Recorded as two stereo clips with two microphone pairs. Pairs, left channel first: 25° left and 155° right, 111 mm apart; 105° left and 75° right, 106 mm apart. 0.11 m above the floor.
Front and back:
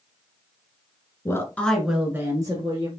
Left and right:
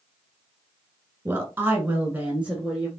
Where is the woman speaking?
20° right, 1.5 m; by 2.9 s 160° right, 1.7 m.